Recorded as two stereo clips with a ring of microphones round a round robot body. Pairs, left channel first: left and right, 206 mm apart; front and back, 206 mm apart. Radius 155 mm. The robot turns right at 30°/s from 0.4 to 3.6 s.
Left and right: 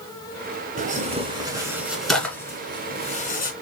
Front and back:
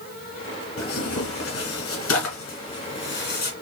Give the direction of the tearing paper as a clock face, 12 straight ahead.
1 o'clock.